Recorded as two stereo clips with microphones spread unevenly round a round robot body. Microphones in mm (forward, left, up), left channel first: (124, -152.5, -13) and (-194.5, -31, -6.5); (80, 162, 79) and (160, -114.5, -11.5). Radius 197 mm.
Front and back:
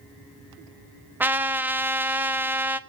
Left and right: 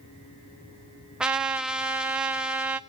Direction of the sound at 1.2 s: 120° right.